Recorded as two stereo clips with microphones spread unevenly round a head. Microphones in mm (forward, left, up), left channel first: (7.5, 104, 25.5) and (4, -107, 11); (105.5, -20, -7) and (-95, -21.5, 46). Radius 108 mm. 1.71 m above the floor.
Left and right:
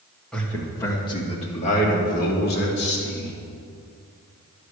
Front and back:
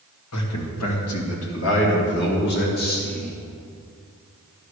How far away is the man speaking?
About 2.5 m.